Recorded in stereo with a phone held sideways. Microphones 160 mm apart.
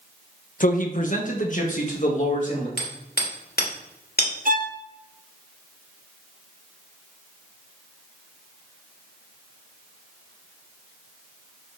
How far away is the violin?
About 0.8 m.